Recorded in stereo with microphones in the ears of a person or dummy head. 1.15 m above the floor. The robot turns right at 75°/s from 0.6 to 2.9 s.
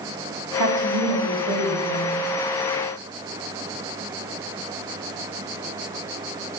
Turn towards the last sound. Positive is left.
turn(degrees=20)